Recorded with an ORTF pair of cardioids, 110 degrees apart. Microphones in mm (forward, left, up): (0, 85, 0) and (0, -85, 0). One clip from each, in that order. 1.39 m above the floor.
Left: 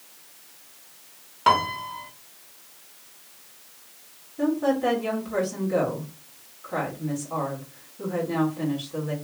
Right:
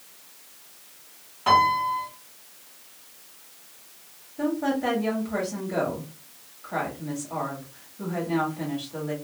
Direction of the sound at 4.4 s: 5° right.